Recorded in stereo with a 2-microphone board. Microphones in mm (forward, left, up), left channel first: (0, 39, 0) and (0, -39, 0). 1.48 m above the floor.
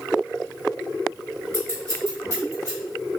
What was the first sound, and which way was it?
Scissors, 40° right (ahead or behind).